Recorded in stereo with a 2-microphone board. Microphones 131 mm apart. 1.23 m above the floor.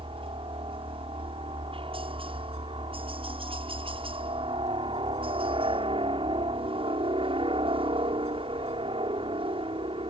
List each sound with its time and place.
0.0 s a helicopter: 45° right (ahead or behind)